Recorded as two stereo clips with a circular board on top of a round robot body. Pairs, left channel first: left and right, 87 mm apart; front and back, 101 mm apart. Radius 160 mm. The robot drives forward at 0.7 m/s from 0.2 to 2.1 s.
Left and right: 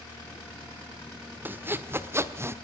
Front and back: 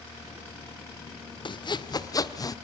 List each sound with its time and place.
1.4 s sawing: 25° right, 1.6 m; by 2.5 s 40° right, 1.3 m